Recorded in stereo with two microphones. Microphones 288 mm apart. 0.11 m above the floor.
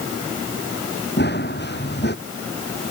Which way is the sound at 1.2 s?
35° left (ahead or behind).